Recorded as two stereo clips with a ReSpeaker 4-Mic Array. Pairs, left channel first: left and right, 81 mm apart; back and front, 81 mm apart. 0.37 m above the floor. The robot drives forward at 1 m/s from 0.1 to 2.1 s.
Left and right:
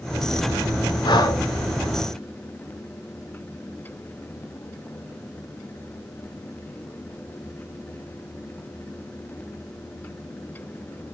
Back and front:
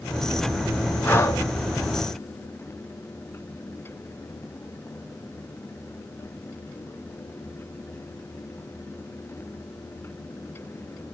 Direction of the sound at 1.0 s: 115° left.